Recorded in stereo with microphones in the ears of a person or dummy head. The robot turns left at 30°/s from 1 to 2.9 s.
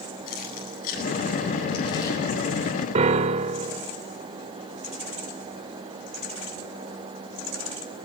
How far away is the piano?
About 0.7 m.